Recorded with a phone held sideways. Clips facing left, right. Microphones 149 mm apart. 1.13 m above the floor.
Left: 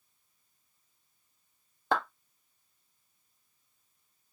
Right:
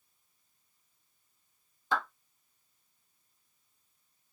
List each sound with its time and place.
1.9 s a clap: 60° left (ahead or behind), 1.4 m